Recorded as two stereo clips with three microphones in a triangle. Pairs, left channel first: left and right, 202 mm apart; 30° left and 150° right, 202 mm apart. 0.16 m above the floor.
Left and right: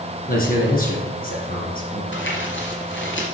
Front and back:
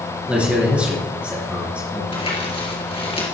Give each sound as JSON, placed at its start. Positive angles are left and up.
{"t": 0.3, "sound": "a man speaking", "azimuth_deg": 125, "distance_m": 3.0}
{"t": 2.1, "sound": "crumpling", "azimuth_deg": 90, "distance_m": 3.0}